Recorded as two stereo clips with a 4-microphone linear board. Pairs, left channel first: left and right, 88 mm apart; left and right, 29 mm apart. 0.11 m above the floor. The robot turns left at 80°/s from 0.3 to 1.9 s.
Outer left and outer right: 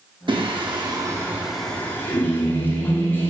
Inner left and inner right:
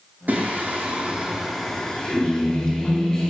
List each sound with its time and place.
0.3 s singing: 80° right, 1.7 m; by 3.3 s 155° left, 1.7 m